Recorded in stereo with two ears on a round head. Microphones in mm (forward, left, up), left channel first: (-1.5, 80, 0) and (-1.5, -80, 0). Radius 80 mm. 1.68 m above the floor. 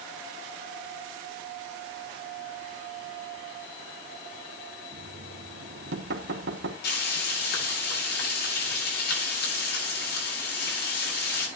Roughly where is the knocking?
Right.